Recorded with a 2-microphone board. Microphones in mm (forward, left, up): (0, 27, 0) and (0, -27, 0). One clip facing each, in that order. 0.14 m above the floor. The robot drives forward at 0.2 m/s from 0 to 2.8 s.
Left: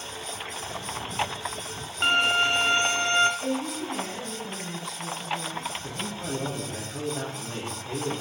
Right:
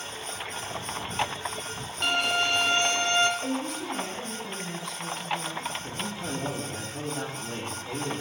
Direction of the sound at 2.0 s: 30° left (ahead or behind).